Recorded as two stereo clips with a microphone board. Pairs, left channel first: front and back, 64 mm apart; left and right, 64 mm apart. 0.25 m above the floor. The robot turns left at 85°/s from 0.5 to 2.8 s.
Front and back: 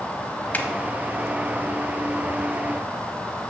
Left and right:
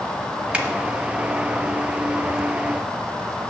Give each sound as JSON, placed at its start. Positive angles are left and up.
{"t": 0.5, "sound": "a finger snap", "azimuth_deg": -35, "distance_m": 0.8}